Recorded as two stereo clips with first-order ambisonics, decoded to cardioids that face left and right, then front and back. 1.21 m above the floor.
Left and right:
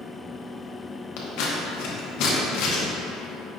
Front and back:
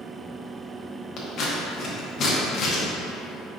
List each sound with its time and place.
1.2 s scissors: 60° left, 0.8 m